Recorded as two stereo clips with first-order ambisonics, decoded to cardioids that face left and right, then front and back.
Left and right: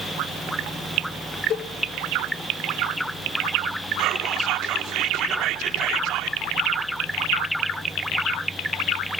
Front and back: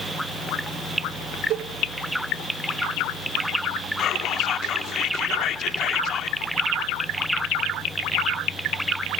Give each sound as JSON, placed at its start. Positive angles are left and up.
{"t": 1.5, "sound": "a cowbell", "azimuth_deg": 140, "distance_m": 1.5}
{"t": 4.0, "sound": "whispering", "azimuth_deg": -50, "distance_m": 2.5}